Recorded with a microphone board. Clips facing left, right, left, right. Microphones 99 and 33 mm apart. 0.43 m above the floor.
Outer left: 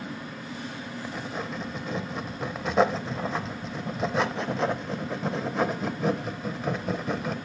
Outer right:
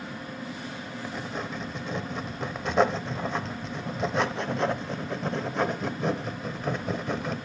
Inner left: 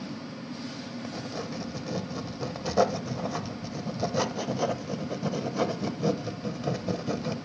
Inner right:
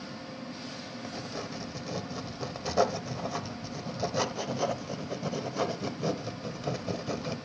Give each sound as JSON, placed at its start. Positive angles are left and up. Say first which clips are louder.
{"t": 1.0, "sound": "writing", "louder": "even, inner left 2 dB", "side_deg": 0, "distance_m": 0.6}